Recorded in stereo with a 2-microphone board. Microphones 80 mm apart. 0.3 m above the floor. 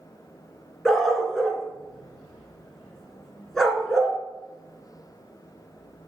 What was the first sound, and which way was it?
A dog barking, 5° left (ahead or behind).